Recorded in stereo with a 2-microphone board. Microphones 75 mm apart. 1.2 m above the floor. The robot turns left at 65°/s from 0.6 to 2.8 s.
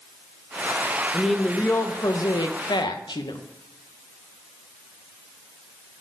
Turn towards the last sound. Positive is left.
turn(degrees=80)